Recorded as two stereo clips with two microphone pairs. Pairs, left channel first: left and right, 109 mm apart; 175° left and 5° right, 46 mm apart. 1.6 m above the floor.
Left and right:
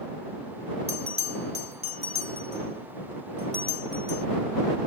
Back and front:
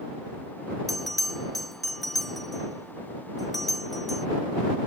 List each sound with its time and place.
0.9 s a bell: 100° right